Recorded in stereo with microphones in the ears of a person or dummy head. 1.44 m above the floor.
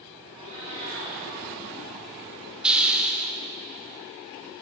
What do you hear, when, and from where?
0.3 s a cat meowing: 25° right (ahead or behind), 1.2 m
2.6 s a hiss: 10° right (ahead or behind), 0.8 m